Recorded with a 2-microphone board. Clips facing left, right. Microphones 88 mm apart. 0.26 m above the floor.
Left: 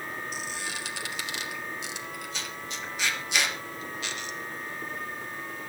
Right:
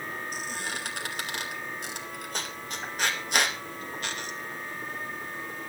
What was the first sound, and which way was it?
A squeak, 45° right (ahead or behind).